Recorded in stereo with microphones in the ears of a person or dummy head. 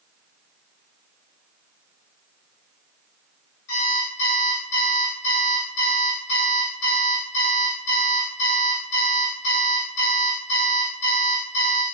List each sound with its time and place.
3.7 s an alarm clock: 65° left (ahead or behind), 1.1 m